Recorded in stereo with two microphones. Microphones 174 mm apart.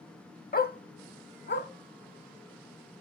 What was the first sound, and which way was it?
A dog barking, 55° left (ahead or behind).